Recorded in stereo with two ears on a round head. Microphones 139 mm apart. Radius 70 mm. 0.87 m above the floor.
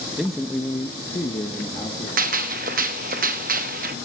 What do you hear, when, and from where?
0.2 s a man speaking: 5° right (ahead or behind), 0.7 m; by 2.1 s 25° left (ahead or behind), 1.5 m
2.2 s a gunshot: 60° right (ahead or behind), 0.7 m